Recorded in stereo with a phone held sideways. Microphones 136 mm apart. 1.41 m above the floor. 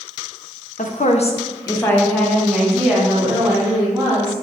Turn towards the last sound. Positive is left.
turn(degrees=-15)  # may be behind; listen again after turning